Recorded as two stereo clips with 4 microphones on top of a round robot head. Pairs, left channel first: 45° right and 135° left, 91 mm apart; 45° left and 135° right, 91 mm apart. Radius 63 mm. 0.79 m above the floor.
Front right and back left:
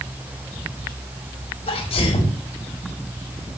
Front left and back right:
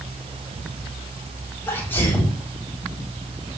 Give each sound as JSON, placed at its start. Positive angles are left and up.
{"t": 1.7, "sound": "a sneeze", "azimuth_deg": -25, "distance_m": 5.5}